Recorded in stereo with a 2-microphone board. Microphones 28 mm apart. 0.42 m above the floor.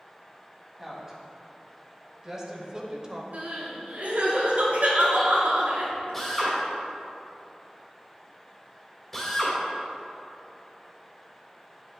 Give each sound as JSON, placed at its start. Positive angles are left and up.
{"t": 0.8, "sound": "a woman speaking", "side_deg": -15, "distance_m": 2.5}
{"t": 3.3, "sound": "crying", "side_deg": -75, "distance_m": 2.5}
{"t": 6.1, "sound": "a drill", "side_deg": 10, "distance_m": 2.5}